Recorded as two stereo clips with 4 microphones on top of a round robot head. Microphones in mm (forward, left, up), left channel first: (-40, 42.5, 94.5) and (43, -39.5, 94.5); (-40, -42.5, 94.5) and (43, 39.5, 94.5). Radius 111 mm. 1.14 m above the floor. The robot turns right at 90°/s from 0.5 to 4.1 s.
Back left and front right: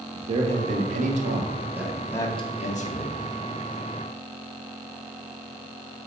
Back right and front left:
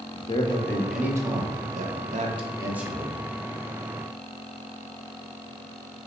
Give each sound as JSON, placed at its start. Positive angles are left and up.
{"t": 0.1, "sound": "a man speaking", "azimuth_deg": -80, "distance_m": 0.8}